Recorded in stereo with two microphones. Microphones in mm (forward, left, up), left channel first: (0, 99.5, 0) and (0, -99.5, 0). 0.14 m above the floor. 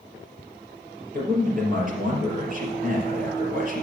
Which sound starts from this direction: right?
A man speaking, at 1.1 s.